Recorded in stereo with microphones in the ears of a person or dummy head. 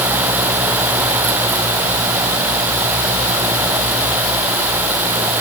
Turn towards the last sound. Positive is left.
No sound to turn to.